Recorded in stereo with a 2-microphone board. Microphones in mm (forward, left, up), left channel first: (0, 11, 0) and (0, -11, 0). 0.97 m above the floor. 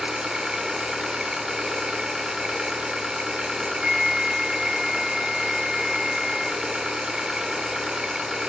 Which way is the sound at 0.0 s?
45° right (ahead or behind).